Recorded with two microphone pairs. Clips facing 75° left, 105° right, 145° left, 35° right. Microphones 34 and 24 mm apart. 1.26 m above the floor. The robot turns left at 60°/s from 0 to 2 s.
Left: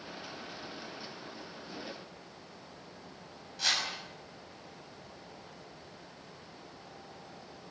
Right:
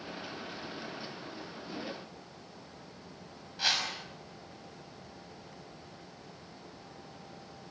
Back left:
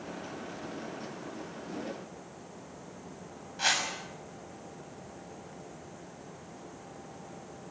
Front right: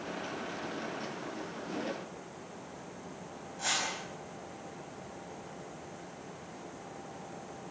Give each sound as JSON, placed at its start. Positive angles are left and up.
{"t": 3.6, "sound": "a whoosh", "azimuth_deg": 180, "distance_m": 6.0}